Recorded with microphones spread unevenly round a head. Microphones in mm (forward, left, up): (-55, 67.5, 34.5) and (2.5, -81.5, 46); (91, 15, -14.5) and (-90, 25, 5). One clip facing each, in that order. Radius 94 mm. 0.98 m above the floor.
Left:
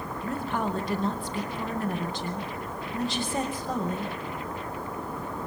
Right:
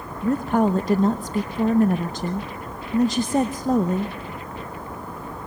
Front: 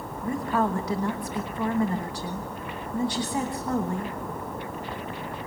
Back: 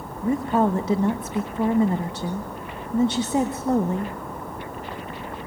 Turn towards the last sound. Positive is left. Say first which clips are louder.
# right 11 dB, back 5 dB
turn(degrees=-115)